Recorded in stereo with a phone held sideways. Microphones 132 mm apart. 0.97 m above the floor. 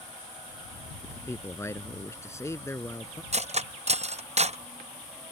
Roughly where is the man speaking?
Left.